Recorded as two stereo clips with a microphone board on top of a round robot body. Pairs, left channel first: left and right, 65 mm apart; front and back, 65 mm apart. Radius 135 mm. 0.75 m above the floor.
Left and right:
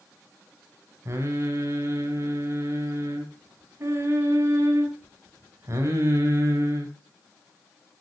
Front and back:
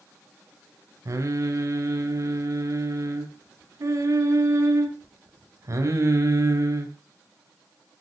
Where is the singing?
140° right, 3.5 m.